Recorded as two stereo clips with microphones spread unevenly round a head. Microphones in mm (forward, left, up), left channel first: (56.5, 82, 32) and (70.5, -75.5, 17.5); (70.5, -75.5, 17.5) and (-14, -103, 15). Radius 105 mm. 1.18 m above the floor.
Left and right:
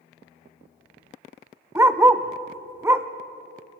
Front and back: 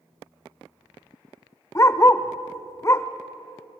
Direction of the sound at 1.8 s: 10° right.